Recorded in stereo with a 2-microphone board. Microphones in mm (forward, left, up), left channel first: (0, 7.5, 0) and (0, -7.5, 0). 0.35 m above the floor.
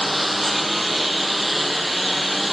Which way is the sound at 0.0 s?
5° right (ahead or behind).